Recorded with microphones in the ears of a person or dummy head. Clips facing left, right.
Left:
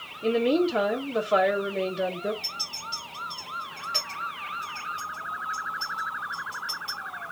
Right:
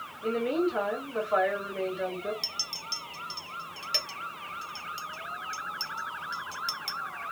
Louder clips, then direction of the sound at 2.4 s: Left 2 dB; 65° right (ahead or behind).